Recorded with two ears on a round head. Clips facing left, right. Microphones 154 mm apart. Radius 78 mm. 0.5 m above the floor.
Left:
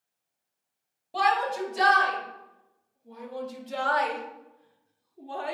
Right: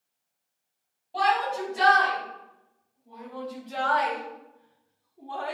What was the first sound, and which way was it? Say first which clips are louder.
A shout: even; 65° left (ahead or behind).